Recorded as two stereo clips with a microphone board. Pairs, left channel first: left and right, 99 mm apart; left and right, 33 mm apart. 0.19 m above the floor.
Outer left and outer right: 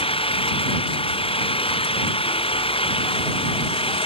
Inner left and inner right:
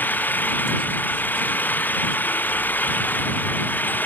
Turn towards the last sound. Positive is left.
turn(degrees=70)  # may be behind; listen again after turning